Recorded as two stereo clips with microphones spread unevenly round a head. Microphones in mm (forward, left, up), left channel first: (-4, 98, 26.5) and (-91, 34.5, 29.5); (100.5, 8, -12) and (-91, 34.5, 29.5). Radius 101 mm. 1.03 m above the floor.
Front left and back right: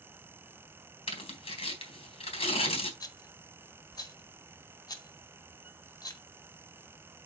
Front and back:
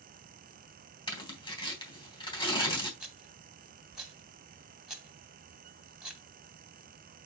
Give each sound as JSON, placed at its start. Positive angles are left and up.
{"t": 1.1, "sound": "tearing paper", "azimuth_deg": 60, "distance_m": 3.0}
{"t": 3.0, "sound": "a rattle", "azimuth_deg": 90, "distance_m": 2.0}